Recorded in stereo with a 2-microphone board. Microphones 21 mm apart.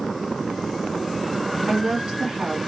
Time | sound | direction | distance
1.7 | a woman speaking | 35° right (ahead or behind) | 1.4 m